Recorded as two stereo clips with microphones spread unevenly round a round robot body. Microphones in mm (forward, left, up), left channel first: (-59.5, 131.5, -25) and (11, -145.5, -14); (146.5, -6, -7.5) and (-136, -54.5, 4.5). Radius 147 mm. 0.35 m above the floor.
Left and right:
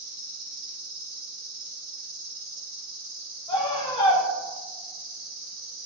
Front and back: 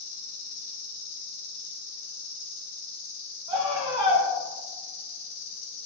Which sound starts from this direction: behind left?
A scream, at 3.5 s.